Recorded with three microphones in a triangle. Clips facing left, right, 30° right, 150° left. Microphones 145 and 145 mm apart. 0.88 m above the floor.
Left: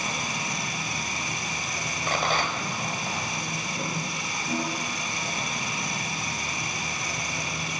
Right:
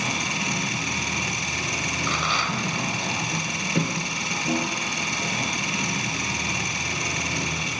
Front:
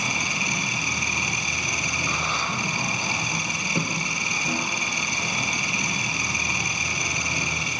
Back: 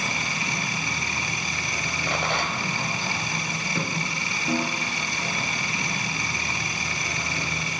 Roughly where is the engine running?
Right.